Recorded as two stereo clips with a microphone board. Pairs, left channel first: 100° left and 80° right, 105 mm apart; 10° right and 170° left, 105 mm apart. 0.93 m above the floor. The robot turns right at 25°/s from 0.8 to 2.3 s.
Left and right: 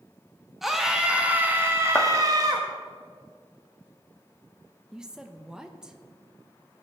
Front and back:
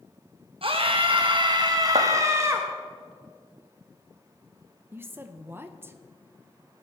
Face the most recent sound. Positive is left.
turn(degrees=-155)